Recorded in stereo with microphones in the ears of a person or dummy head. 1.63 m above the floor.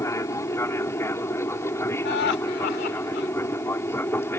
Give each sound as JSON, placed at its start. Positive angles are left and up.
{"t": 0.0, "sound": "an aircraft", "side_deg": 15}
{"t": 2.0, "sound": "laughter", "side_deg": 60}